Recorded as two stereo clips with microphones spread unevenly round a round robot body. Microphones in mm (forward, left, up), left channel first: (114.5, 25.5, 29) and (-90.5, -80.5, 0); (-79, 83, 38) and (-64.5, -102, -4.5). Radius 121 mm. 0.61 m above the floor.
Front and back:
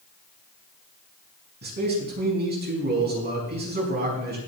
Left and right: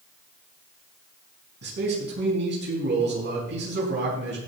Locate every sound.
1.6 s a man speaking: 105° right, 5.5 m